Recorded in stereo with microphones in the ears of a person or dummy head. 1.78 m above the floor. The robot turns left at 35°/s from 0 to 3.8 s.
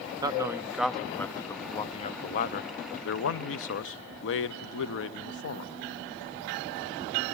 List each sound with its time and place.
0.2 s a man speaking: 160° right, 0.6 m; by 5.7 s 75° left, 0.6 m